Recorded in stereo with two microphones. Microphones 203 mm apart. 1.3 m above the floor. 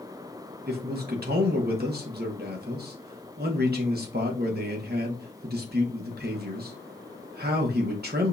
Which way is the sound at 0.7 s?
50° right (ahead or behind).